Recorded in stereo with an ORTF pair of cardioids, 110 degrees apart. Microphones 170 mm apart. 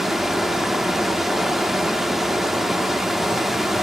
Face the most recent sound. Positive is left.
turn(degrees=-5)